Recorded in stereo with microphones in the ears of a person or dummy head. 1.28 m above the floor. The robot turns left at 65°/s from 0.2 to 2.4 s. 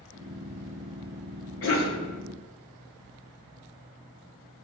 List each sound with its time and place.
1.6 s a cough: 65° left (ahead or behind), 1.0 m; by 2.0 s 60° left (ahead or behind), 1.0 m